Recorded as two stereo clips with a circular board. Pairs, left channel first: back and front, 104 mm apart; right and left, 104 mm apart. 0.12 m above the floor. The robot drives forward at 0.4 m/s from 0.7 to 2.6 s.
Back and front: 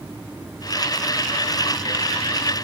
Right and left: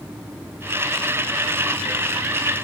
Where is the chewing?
I don't hear chewing.